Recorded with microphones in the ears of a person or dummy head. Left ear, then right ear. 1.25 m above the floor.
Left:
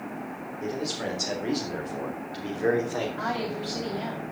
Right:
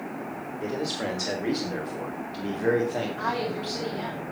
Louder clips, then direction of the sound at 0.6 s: Right 1 dB; 25° right (ahead or behind).